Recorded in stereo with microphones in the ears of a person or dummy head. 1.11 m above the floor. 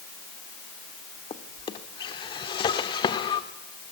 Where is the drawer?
25° left (ahead or behind), 1.6 m.